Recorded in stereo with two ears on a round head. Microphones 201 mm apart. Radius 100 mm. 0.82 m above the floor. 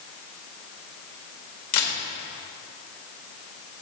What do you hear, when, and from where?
1.7 s a camera shutter: 70° left (ahead or behind), 1.9 m